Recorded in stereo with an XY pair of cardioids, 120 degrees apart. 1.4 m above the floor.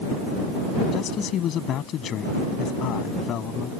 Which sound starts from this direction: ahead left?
A man speaking, at 0.9 s.